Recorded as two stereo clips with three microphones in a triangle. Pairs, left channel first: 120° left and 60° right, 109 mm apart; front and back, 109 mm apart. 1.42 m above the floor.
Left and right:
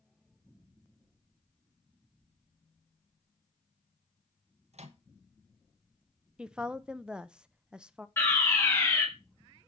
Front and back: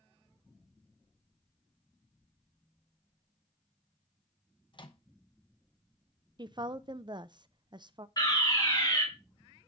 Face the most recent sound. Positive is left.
turn(degrees=50)